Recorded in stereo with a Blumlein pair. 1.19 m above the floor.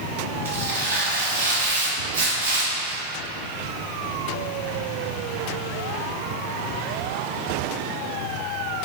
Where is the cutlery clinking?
I don't hear cutlery clinking.